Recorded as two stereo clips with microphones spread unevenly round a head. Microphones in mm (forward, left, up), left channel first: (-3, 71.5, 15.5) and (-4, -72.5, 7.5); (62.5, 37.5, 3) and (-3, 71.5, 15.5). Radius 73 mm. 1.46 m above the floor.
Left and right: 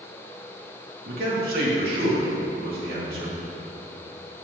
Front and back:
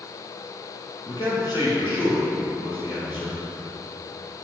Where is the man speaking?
70° right, 2.5 m.